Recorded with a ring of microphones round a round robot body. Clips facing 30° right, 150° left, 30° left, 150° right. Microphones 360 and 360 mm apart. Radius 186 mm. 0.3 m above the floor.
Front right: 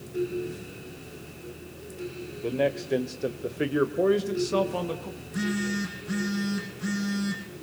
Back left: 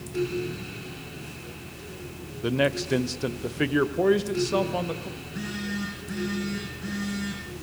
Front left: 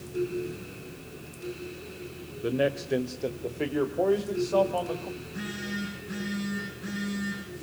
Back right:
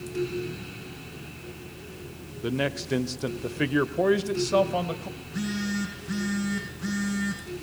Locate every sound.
2.4 s a man speaking: 150° left, 1.2 m; by 5.1 s 115° right, 1.8 m
5.2 s a phone buzzing: 100° right, 7.5 m